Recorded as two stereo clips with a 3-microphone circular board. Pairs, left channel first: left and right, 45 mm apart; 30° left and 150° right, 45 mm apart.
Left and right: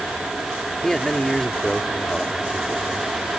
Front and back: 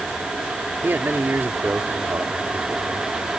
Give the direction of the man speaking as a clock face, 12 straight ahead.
6 o'clock.